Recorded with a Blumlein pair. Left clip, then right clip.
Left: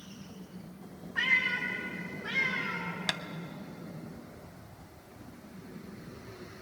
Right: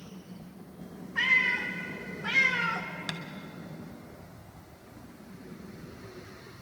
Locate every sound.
1.1 s a cat meowing: 10° right, 3 m; by 2.9 s 40° right, 1.8 m
3.1 s tapping: 20° left, 0.7 m